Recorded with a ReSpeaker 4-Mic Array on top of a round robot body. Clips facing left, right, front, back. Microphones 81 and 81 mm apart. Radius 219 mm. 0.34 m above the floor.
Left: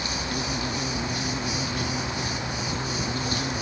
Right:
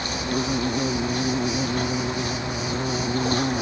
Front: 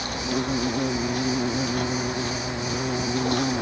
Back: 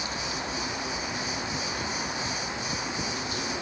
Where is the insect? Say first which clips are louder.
Right 4 dB, front 6 dB; 40° right.